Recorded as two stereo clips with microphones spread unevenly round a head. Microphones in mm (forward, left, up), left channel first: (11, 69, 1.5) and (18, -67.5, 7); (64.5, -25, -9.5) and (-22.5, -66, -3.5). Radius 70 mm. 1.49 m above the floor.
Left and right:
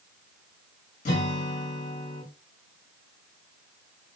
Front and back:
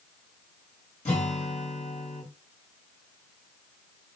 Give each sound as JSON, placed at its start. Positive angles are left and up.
{"t": 1.1, "sound": "a guitar", "azimuth_deg": 65, "distance_m": 1.6}